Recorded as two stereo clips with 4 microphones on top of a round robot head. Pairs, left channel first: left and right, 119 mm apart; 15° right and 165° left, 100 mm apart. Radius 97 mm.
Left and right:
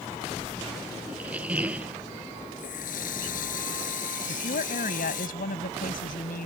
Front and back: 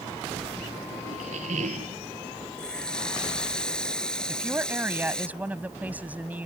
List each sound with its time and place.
1.1 s a squeak: 170° right
2.6 s a running tap: 70° left
4.3 s a woman speaking: 95° left